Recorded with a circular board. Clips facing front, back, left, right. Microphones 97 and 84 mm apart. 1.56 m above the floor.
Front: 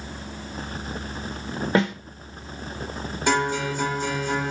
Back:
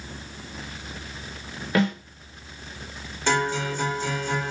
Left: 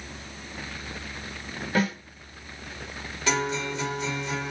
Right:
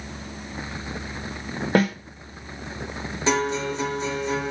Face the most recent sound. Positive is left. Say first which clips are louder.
# front 1 dB, right 4 dB
turn(degrees=-70)